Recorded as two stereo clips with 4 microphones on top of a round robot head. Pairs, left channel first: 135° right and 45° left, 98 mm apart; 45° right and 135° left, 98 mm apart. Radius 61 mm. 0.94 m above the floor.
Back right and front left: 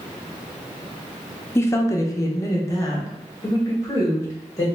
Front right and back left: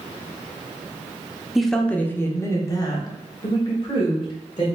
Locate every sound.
1.6 s a woman speaking: 140° right, 0.7 m; by 4.7 s 80° right, 2 m